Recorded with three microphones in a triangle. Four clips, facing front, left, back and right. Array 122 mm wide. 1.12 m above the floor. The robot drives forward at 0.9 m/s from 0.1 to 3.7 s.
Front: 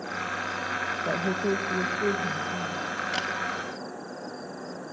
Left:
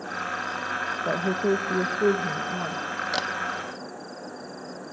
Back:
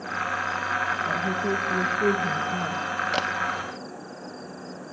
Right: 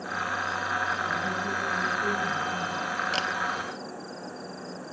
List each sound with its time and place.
1.1 s a woman speaking: 60° left, 1.2 m; by 3.0 s 140° left, 1.6 m
3.1 s a camera shutter: 165° left, 0.9 m